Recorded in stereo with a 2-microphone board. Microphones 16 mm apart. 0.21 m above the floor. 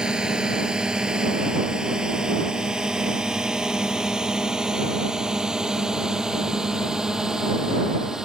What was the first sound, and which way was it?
A drone, 70° right (ahead or behind).